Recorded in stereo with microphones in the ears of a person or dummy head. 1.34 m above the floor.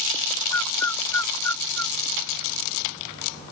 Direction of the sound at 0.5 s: 10° left (ahead or behind).